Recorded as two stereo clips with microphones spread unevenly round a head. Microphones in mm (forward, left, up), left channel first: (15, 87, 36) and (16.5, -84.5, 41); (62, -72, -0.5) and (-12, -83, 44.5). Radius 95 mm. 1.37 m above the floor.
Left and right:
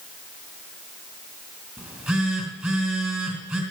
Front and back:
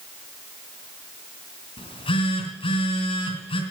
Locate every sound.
1.8 s a phone buzzing: 5° right, 3 m